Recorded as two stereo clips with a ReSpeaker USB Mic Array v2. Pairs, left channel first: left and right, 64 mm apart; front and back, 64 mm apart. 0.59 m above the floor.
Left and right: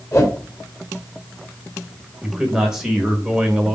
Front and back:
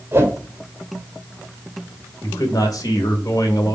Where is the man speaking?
10° right, 2.5 m.